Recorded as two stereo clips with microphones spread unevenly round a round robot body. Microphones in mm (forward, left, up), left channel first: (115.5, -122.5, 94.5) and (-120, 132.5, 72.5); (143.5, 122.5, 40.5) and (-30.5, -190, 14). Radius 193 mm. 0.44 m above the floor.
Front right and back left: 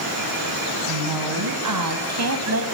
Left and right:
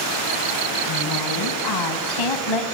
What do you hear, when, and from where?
0.9 s a woman speaking: 110° left, 3.5 m; by 2.6 s 80° left, 3 m